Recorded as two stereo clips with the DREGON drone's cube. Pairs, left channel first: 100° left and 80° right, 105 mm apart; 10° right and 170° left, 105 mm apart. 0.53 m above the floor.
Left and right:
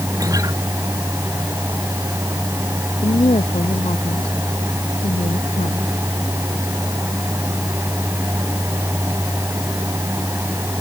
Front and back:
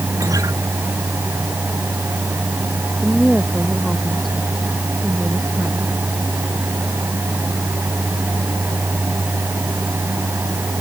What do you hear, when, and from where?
0.2 s a guitar: 135° right
3.0 s a woman speaking: 80° left